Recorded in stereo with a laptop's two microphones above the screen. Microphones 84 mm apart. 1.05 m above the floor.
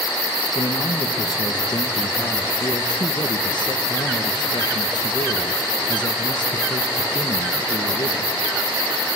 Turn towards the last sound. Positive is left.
turn(degrees=55)  # may be behind; listen again after turning